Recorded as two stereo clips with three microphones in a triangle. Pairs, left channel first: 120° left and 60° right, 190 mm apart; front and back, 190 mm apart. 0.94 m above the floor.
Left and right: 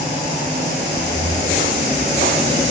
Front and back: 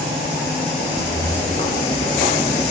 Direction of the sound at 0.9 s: 70° right.